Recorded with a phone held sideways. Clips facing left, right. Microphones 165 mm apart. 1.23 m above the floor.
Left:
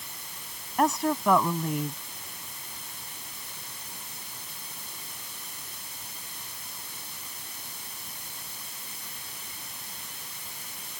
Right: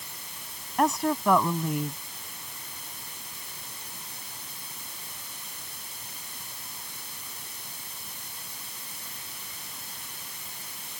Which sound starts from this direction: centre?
A woman speaking, at 0.8 s.